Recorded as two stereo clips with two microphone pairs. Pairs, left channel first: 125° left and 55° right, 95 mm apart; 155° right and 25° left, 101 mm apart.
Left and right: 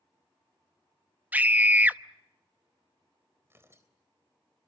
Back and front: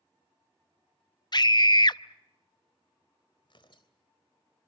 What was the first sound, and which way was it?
A scream, 125° right.